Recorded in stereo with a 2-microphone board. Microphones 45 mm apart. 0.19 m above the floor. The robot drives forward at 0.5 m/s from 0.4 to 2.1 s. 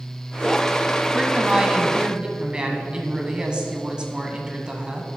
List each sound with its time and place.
1.1 s a woman speaking: 25° right (ahead or behind), 1.0 m